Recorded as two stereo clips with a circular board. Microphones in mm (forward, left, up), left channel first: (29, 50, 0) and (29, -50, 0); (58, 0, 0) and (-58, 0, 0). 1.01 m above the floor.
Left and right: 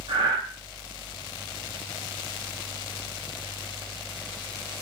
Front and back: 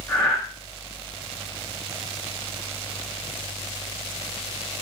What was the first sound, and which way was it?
Breathing, 75° right.